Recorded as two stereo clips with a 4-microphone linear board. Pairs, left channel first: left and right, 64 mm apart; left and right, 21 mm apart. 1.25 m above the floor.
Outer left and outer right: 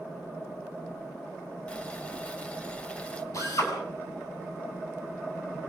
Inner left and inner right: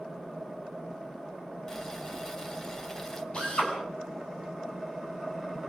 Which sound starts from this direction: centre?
Boiling, at 1.7 s.